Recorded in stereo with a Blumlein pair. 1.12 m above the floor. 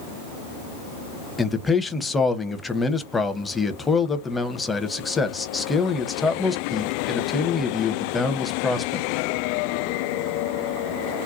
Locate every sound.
1.4 s a man speaking: 15° left, 0.7 m